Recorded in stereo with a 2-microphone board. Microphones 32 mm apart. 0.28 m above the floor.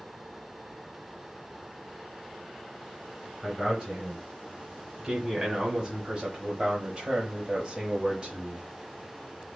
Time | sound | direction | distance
3.4 | a man speaking | 15° right (ahead or behind) | 2 m